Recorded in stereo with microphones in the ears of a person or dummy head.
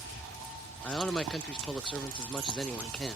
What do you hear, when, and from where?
0.8 s a man speaking: 5° left (ahead or behind), 0.8 m